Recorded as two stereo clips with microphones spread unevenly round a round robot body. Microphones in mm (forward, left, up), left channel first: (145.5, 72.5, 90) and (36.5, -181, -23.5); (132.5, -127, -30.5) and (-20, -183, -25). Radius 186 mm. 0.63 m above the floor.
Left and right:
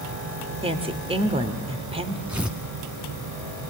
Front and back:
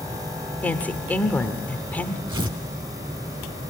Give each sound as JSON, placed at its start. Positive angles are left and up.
{"t": 0.6, "sound": "a woman speaking", "azimuth_deg": -60, "distance_m": 2.0}
{"t": 2.3, "sound": "tearing paper", "azimuth_deg": 145, "distance_m": 0.7}